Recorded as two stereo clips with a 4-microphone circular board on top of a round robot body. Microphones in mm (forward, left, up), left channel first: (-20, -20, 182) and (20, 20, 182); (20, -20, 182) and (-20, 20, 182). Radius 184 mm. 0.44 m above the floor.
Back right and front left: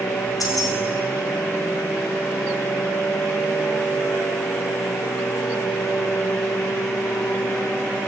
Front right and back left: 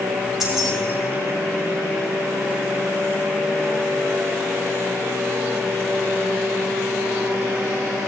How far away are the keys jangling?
About 2.5 m.